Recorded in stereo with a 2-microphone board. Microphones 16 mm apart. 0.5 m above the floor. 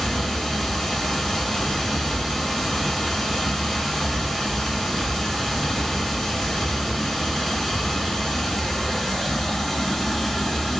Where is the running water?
35° left (ahead or behind), 1.9 m.